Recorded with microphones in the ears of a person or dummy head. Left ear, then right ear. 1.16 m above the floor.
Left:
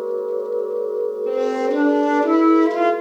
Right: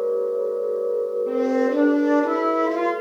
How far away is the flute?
About 0.6 m.